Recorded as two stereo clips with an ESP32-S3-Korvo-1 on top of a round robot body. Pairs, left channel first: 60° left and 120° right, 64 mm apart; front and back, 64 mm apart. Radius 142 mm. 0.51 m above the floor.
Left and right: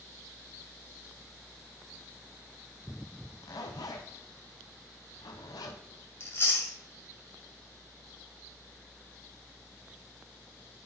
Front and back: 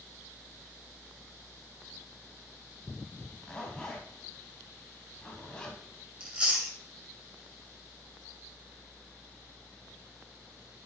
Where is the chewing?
105° left, 2.5 m.